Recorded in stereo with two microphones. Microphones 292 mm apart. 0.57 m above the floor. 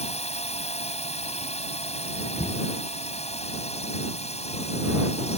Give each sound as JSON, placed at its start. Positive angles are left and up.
{"t": 0.0, "sound": "a drone", "side_deg": 20}
{"t": 2.4, "sound": "knocking", "side_deg": 30}